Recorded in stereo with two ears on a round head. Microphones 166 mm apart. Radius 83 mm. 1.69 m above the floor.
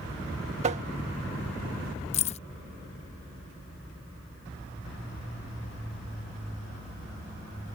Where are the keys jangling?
35° left (ahead or behind).